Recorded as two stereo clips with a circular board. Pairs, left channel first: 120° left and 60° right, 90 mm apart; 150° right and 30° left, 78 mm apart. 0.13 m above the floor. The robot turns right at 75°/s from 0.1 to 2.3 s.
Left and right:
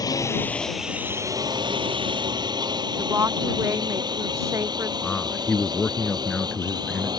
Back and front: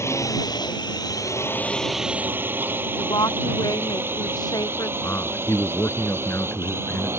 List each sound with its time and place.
0.0 s a drone: 160° left; by 7.2 s 25° right
3.0 s a woman speaking: 115° right
5.0 s a man speaking: 165° right